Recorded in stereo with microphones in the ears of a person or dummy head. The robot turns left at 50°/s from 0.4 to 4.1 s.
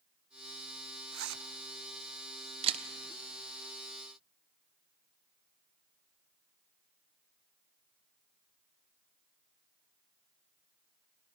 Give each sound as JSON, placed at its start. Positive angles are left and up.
{"t": 1.1, "sound": "a zipper", "side_deg": -70, "distance_m": 0.7}
{"t": 2.6, "sound": "a camera shutter", "side_deg": -30, "distance_m": 1.1}